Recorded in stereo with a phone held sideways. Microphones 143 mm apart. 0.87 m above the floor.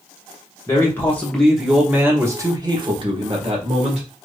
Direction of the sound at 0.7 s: 20° left (ahead or behind).